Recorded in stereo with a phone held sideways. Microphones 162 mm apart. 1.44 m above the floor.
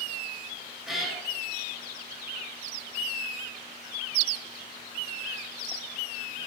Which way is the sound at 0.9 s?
Centre (ahead or behind).